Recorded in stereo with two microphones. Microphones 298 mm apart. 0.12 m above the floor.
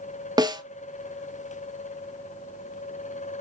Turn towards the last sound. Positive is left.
turn(degrees=-15)  # may be behind; listen again after turning